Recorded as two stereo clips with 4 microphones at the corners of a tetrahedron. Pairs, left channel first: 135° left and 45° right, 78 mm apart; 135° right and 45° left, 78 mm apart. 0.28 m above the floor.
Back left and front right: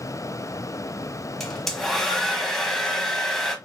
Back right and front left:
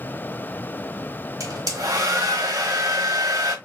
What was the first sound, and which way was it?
A hair dryer, 50° left.